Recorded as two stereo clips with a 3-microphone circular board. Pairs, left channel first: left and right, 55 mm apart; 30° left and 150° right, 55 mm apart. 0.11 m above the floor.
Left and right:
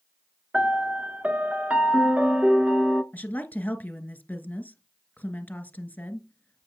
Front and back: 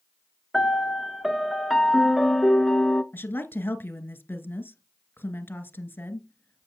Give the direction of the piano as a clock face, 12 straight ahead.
2 o'clock.